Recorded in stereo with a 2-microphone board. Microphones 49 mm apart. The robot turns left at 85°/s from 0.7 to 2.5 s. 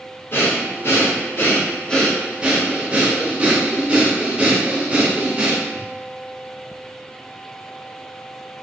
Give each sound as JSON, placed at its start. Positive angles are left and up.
{"t": 0.3, "sound": "breathing", "azimuth_deg": 120, "distance_m": 0.6}